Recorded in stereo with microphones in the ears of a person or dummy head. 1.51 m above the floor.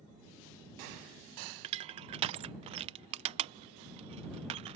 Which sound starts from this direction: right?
Crushing, at 1.6 s.